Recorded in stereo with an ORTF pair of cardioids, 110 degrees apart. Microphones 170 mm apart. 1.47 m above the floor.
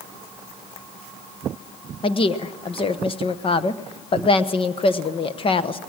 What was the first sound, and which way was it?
A woman speaking, 30° left.